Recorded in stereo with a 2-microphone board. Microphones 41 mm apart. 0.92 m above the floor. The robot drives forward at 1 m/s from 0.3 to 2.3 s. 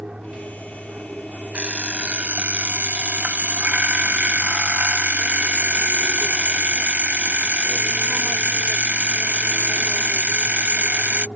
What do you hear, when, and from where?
0.0 s an aircraft: 25° right (ahead or behind); by 11.4 s 30° right (ahead or behind)
1.5 s an alarm clock: 30° right (ahead or behind); by 11.3 s 40° right (ahead or behind)